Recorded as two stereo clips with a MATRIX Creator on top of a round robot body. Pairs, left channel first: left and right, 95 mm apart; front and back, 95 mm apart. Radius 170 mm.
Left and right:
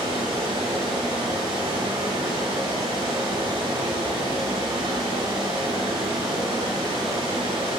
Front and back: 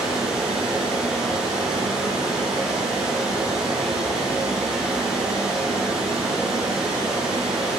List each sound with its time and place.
0.0 s running water: 95° right, 7.5 m